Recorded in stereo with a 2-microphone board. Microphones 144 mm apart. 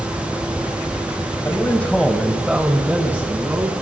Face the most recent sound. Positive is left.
turn(degrees=-15)  # may be behind; listen again after turning